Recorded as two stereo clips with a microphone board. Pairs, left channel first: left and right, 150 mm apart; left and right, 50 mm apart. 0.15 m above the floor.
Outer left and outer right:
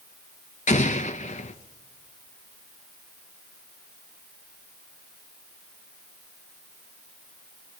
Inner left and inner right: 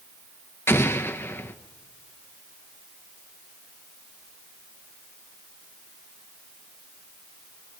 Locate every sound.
0.7 s an explosion: 55° left (ahead or behind), 1.0 m